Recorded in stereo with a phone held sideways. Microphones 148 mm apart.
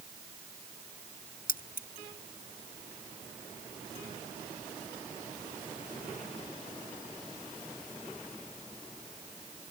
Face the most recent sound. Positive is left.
turn(degrees=80)